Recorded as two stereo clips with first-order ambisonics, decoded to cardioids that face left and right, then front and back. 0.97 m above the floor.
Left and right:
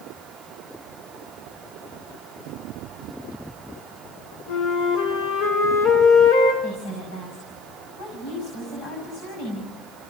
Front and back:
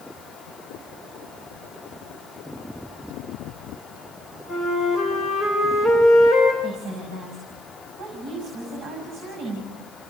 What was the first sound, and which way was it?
A flute, 90° left.